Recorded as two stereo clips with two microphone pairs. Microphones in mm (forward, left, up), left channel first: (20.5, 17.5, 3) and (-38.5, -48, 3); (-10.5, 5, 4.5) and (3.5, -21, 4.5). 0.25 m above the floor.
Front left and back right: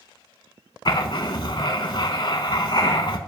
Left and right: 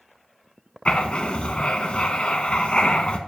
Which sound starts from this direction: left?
Writing, at 0.8 s.